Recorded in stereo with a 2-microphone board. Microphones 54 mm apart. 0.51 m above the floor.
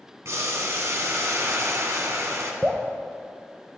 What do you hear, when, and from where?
0.2 s boiling: 60° right (ahead or behind), 1.3 m
2.6 s dripping: 30° right (ahead or behind), 0.9 m